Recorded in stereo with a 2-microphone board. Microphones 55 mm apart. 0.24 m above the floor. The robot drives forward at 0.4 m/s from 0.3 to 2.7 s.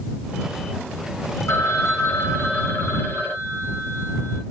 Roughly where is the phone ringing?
Left.